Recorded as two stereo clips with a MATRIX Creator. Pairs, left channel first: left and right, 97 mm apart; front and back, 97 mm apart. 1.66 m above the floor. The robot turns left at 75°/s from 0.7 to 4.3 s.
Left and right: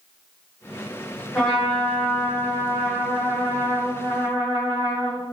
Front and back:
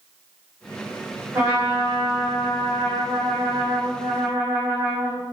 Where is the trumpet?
165° left, 1.7 m; by 5.2 s 60° right, 1.7 m.